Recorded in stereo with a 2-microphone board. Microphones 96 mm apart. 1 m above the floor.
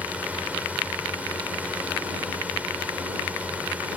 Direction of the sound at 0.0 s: 15° right (ahead or behind).